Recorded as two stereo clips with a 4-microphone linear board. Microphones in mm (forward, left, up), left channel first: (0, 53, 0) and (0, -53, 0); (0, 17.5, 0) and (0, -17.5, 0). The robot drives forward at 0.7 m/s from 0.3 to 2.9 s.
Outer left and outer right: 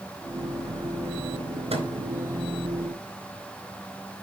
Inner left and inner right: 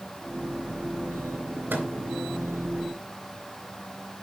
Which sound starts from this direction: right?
A microwave, at 1.7 s.